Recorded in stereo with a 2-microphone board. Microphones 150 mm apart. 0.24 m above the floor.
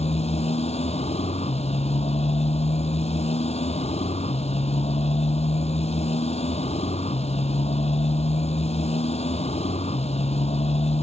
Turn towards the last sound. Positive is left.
turn(degrees=45)  # may be behind; listen again after turning